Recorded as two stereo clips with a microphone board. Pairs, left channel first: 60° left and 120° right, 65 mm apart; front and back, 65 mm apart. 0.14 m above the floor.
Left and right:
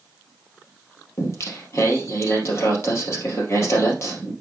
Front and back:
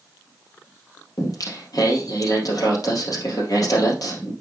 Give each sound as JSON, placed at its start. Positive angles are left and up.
{"t": 1.2, "sound": "singing", "azimuth_deg": 20, "distance_m": 3.0}